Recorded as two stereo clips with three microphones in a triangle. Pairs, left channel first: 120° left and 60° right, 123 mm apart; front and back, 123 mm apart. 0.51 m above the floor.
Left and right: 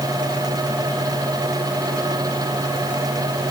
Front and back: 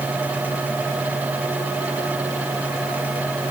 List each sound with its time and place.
Only background noise.